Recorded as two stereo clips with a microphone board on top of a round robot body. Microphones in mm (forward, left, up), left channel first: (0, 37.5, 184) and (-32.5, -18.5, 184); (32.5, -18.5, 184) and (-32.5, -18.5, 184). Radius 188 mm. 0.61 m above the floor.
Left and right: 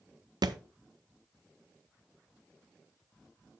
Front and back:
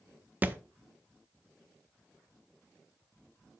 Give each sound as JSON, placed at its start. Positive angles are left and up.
{"t": 0.4, "sound": "a thud", "azimuth_deg": -115, "distance_m": 0.6}